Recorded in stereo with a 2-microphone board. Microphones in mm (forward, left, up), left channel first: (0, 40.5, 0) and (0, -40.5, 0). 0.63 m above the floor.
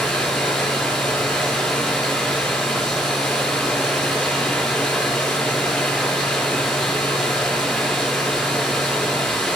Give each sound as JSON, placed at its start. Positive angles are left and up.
{"t": 0.0, "sound": "running water", "side_deg": 5, "distance_m": 7.0}